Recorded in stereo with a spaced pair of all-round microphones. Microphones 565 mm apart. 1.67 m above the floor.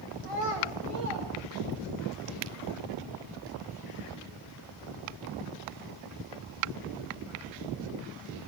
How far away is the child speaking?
About 2.5 m.